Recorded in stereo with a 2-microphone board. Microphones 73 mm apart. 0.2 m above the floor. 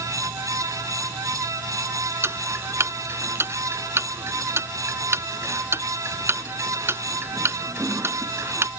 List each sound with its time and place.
2.2 s ticking: 40° right (ahead or behind)